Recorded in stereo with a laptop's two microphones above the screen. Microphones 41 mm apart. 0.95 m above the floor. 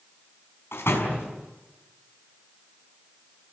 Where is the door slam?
85° left, 5.5 m.